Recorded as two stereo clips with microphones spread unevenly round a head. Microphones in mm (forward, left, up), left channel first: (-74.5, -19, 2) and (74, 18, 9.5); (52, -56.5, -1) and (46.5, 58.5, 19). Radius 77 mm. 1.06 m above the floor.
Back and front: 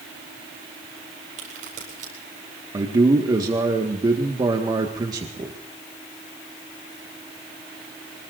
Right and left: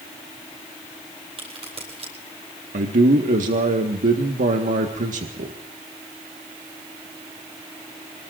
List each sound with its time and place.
1.4 s a crack: 55° left, 9 m
2.7 s a man speaking: 80° left, 1.6 m